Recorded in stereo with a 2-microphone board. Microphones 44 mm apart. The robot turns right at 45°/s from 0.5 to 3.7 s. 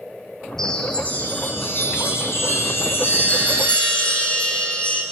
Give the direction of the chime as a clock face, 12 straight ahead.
12 o'clock.